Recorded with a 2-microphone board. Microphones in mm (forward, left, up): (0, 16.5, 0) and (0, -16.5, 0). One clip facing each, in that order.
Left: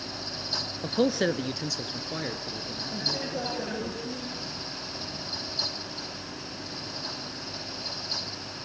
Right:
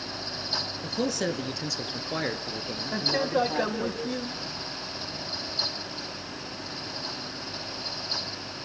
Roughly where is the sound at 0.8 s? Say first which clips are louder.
Left 5 dB; left.